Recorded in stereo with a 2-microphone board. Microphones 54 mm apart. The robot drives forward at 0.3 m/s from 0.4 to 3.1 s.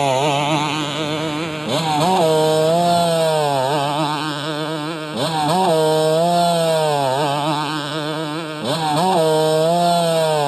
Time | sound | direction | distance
0.0 | a motorcycle | 5° left (ahead or behind) | ?